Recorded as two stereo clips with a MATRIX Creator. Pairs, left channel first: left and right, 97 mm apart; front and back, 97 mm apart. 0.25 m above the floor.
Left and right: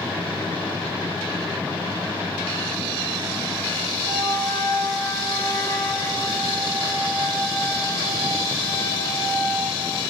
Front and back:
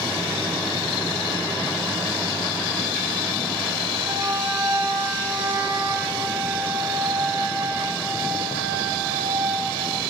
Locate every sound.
4.0 s a flute: 115° left, 2.5 m